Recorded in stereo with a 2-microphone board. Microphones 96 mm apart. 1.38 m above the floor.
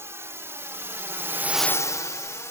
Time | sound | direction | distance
0.0 | a drone | 30° right (ahead or behind) | ?